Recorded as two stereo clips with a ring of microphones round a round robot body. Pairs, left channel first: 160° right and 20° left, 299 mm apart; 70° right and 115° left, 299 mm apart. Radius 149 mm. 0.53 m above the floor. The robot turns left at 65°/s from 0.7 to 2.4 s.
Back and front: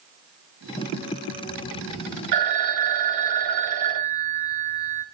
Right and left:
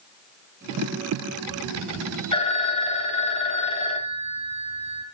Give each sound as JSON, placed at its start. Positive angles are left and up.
{"t": 2.3, "sound": "a phone ringing", "azimuth_deg": 5, "distance_m": 2.0}